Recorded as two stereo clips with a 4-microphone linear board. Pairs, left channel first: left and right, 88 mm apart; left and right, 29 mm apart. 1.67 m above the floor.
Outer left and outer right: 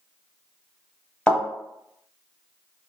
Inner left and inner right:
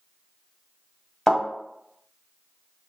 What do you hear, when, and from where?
1.3 s a thud: 10° left (ahead or behind), 1.1 m